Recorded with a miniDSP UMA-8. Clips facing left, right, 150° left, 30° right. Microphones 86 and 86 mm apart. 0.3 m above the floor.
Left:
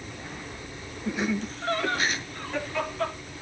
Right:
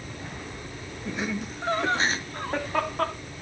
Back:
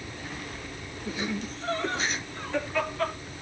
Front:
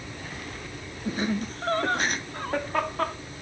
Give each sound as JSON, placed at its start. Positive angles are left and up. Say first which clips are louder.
{"t": 1.1, "sound": "laughter", "louder": "left 3 dB, front 4 dB", "azimuth_deg": 5, "distance_m": 1.7}